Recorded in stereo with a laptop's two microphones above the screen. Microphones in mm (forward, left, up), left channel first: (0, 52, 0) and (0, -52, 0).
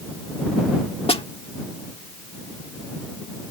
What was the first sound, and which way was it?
A snare drum, 70° left (ahead or behind).